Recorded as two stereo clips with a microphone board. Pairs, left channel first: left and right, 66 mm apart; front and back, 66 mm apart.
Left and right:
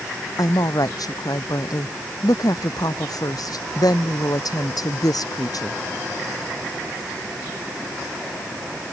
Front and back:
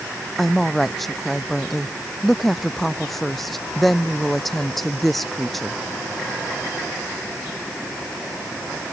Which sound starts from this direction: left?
A woman speaking, at 0.4 s.